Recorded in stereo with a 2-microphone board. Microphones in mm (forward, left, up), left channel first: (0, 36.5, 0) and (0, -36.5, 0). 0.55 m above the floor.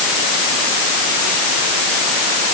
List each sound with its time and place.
Only background noise.